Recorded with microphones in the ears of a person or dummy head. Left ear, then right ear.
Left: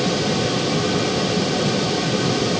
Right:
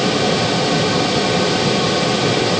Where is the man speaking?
No man speaking in this recording.